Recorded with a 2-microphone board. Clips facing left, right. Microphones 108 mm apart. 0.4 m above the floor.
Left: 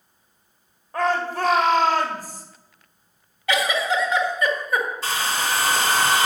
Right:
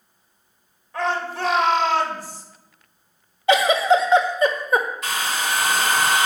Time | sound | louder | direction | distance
0.9 | a shout | left 2 dB | 45° left (ahead or behind) | 1.9 m
3.5 | a giggle | right 6 dB | 25° right (ahead or behind) | 1.4 m
5.0 | a hair dryer | even | 30° left (ahead or behind) | 1.9 m